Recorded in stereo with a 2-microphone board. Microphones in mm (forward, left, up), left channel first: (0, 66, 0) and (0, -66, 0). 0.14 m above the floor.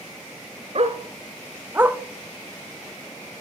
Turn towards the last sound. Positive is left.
turn(degrees=-5)  # may be behind; listen again after turning